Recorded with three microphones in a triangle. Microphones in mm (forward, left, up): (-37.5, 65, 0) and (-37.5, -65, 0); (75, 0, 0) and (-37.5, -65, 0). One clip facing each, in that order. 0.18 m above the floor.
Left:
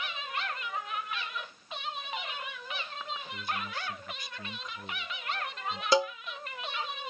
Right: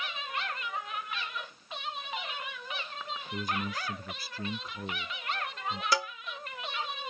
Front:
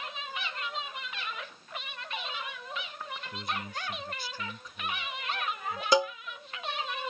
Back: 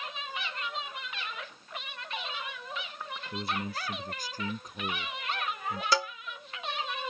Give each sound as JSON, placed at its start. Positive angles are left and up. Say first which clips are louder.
{"t": 3.3, "sound": "a man speaking", "louder": "right 5 dB, back 4 dB", "azimuth_deg": -105}
{"t": 5.9, "sound": "a cowbell", "louder": "left 7 dB, front 6 dB", "azimuth_deg": 70}